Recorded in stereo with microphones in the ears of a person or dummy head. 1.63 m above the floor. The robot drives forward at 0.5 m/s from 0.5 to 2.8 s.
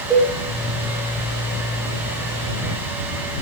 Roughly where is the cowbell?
Centre.